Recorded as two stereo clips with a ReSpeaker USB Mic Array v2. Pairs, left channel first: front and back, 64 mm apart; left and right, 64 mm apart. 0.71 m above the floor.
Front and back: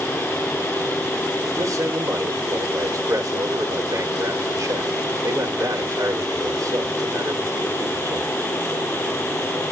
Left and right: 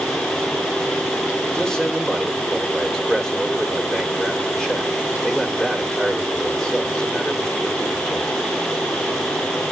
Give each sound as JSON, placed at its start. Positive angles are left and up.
{"t": 1.5, "sound": "a man speaking", "azimuth_deg": 175, "distance_m": 2.0}